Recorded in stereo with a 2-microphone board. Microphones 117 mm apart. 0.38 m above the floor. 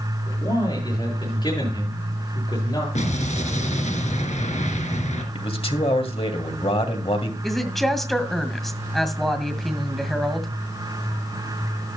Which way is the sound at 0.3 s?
35° left (ahead or behind).